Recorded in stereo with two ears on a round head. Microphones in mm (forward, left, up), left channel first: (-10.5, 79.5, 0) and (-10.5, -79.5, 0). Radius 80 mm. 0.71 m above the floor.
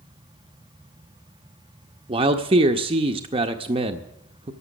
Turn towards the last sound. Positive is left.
turn(degrees=-30)  # may be behind; listen again after turning